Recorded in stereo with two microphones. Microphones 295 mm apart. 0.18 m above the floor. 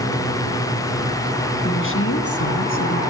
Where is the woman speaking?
35° left (ahead or behind), 1.8 m; by 3.0 s 60° left (ahead or behind), 3 m.